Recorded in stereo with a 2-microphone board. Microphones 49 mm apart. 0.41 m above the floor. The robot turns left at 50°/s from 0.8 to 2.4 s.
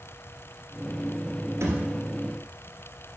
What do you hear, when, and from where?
1.6 s a thud: 85° right, 2 m; by 1.9 s 75° right (ahead or behind), 2 m